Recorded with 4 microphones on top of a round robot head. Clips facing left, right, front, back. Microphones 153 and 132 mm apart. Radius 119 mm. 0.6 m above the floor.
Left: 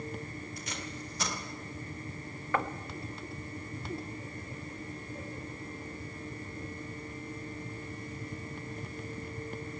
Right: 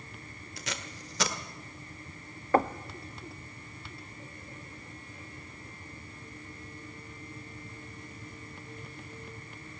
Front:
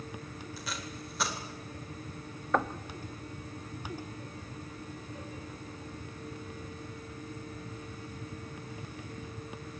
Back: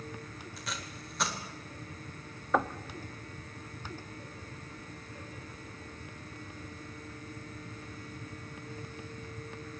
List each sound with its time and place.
0.6 s tape being pulled: 90° right, 1.7 m
2.5 s knocking: 90° right, 0.9 m